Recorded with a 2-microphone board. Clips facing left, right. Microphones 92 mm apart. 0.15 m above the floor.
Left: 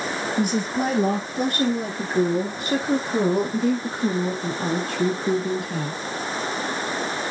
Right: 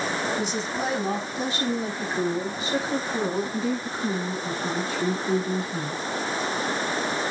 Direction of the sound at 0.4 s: 55° left (ahead or behind).